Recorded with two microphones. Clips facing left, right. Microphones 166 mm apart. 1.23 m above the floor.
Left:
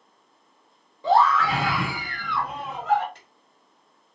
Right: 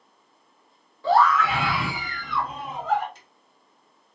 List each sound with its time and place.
1.0 s a scream: 20° left (ahead or behind), 1.2 m; by 3.0 s 80° left, 1.8 m
3.1 s a drawer: 60° left (ahead or behind), 1.7 m